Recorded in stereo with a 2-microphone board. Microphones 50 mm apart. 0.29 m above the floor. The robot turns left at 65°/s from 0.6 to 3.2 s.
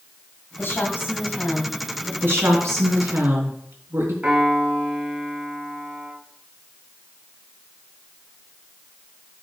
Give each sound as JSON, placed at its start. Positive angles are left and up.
{"t": 0.6, "sound": "a woman speaking", "azimuth_deg": 95, "distance_m": 2.0}
{"t": 2.2, "sound": "a woman speaking", "azimuth_deg": -50, "distance_m": 2.5}
{"t": 4.2, "sound": "a piano", "side_deg": -30, "distance_m": 3.0}